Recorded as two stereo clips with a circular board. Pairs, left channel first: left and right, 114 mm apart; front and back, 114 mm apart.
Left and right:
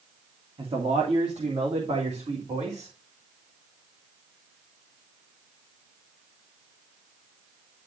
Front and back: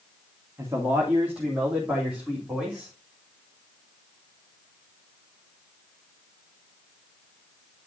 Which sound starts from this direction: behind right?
A man speaking, at 0.6 s.